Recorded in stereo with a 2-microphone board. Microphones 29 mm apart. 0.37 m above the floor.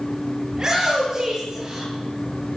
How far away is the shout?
About 8 m.